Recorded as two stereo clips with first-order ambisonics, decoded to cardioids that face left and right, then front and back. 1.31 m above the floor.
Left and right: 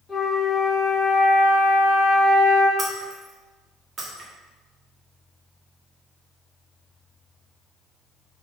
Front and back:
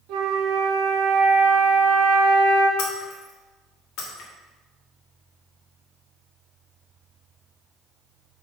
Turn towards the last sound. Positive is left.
turn(degrees=-25)